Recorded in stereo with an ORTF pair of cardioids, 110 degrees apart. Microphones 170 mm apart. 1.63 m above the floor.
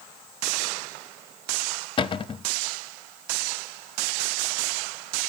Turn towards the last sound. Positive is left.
turn(degrees=30)